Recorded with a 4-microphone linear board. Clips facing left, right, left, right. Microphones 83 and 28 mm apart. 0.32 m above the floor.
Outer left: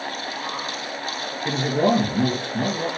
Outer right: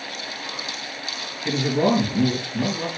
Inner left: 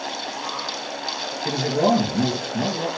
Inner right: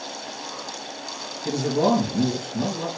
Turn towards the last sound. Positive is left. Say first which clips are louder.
# even, inner left 1 dB
turn(degrees=30)  # may be behind; listen again after turning